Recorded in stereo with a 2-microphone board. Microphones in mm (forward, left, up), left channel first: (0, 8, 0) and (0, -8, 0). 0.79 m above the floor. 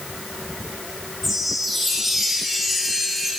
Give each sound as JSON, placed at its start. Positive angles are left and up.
{"t": 1.2, "sound": "a chime", "side_deg": -5, "distance_m": 3.0}